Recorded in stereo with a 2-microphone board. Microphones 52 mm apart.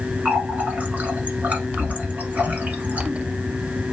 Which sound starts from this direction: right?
A running tap, at 0.2 s.